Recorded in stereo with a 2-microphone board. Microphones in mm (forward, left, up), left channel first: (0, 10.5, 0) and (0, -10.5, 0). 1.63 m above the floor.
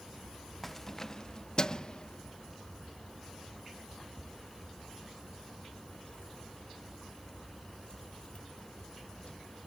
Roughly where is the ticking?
I don't hear ticking.